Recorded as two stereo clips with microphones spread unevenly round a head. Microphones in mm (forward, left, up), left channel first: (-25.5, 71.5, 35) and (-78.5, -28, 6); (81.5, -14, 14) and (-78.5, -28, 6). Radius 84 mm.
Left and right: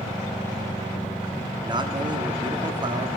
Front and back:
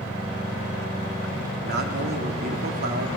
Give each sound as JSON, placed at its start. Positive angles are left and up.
{"t": 1.6, "sound": "a man speaking", "azimuth_deg": -160, "distance_m": 2.0}